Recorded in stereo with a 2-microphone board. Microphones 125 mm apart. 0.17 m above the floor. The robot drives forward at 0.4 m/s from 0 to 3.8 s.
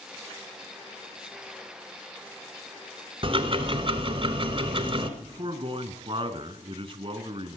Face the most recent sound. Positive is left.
turn(degrees=-45)  # may be behind; listen again after turning